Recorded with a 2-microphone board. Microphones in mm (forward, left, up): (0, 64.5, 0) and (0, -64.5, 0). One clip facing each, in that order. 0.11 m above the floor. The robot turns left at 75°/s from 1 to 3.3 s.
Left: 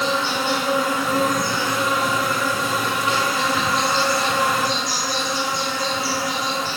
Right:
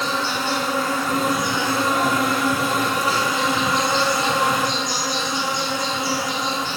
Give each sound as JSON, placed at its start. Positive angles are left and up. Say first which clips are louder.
{"t": 0.0, "sound": "an insect", "louder": "left 2 dB", "azimuth_deg": 20, "distance_m": 1.9}